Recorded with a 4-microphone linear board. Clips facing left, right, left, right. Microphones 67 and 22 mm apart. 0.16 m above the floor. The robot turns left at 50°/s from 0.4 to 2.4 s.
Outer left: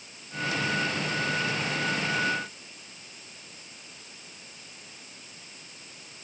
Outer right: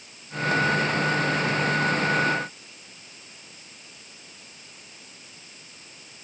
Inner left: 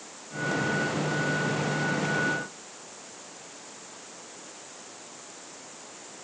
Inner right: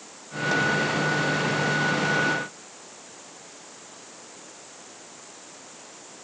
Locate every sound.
Only background noise.